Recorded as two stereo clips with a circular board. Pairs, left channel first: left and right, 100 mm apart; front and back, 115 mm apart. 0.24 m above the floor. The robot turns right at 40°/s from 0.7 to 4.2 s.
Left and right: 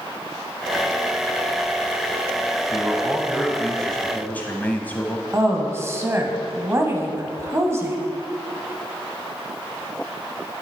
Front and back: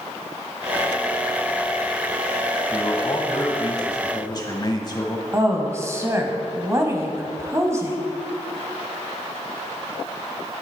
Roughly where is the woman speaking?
Behind right.